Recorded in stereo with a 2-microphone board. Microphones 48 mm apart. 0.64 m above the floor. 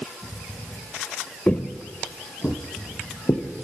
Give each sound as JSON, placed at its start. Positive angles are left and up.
{"t": 1.5, "sound": "footsteps", "side_deg": 30, "distance_m": 0.7}